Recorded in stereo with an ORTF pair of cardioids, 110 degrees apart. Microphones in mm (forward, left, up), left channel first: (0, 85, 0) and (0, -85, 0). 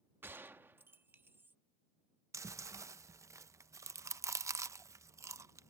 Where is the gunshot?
10° right.